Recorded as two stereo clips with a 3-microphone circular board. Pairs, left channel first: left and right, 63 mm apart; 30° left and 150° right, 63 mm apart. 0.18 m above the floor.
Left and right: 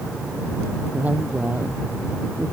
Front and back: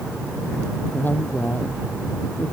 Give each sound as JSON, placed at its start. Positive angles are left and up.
{"t": 0.9, "sound": "a woman speaking", "azimuth_deg": -25}